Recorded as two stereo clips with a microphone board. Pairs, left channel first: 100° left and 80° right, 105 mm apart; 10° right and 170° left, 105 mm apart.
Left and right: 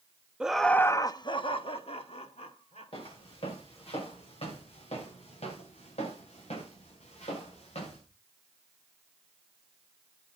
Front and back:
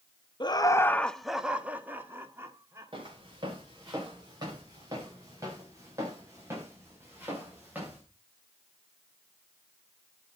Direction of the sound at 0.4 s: 5° right.